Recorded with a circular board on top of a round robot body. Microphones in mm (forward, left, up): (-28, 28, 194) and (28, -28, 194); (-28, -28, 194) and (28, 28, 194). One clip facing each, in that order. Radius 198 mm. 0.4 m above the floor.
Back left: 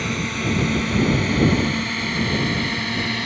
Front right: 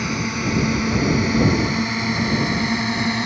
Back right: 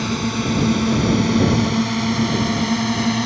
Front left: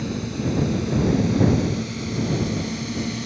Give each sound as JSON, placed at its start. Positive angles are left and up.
{"t": 0.0, "sound": "a drone", "azimuth_deg": -125}